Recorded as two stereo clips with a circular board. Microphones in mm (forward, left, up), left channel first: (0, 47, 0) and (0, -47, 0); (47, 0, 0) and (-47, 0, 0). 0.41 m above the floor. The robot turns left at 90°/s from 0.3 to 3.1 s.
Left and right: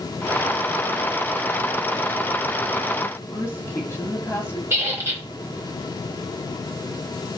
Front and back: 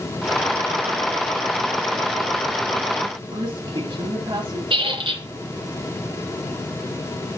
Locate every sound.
3.3 s a woman speaking: 155° left, 2.5 m
4.7 s a squeak: 155° right, 3.5 m